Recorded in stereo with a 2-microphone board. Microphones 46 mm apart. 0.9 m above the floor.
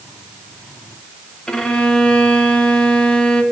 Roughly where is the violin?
Centre.